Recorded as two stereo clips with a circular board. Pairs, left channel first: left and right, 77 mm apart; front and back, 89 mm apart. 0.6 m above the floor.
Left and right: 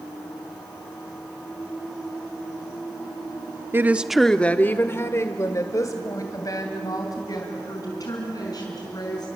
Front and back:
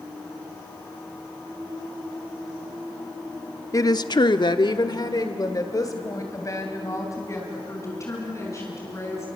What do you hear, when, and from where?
3.7 s a woman speaking: 40° right, 0.9 m; by 9.3 s 55° left, 6 m